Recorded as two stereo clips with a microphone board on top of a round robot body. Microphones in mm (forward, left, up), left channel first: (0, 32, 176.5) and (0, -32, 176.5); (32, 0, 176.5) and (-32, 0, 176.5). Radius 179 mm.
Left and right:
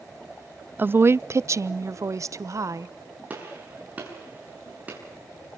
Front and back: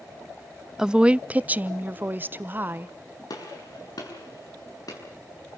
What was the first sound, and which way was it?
A woman speaking, 105° right.